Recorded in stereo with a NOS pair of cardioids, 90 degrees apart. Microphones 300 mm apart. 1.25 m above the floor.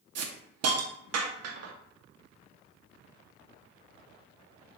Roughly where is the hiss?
Ahead right.